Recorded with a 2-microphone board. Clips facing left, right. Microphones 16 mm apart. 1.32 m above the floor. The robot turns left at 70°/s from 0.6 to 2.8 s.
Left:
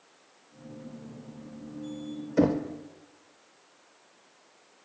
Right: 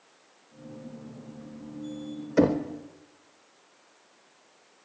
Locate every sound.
2.4 s knocking: 30° right (ahead or behind), 0.6 m; by 2.6 s 15° right (ahead or behind), 0.6 m